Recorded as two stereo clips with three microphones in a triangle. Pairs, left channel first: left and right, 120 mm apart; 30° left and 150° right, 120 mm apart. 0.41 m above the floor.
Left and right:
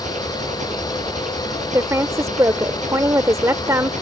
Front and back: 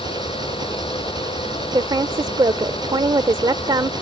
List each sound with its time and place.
0.0 s an engine running: 95° right
1.7 s a woman speaking: 140° right